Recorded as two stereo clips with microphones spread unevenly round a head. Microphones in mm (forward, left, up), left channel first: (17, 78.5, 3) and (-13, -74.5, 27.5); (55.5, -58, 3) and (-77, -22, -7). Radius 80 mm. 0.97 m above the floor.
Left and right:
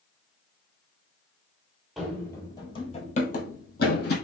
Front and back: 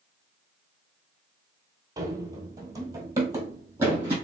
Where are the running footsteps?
165° right, 1.0 m; by 4.1 s 90° left, 1.5 m.